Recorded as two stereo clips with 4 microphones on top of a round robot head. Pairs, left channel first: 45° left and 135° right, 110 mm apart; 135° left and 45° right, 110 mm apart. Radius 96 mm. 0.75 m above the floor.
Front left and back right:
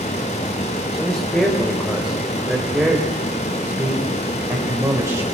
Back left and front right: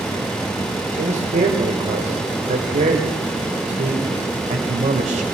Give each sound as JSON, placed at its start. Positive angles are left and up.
{"t": 0.9, "sound": "a man speaking", "azimuth_deg": -35, "distance_m": 3.5}